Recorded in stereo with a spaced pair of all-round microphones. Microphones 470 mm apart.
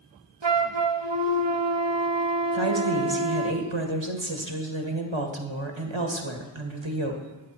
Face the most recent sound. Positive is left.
turn(degrees=-75)  # may be behind; listen again after turning